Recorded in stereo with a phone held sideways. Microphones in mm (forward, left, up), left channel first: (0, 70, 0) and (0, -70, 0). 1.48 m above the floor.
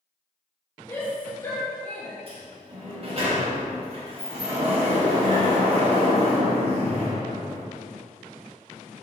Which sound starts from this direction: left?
A shout, at 0.9 s.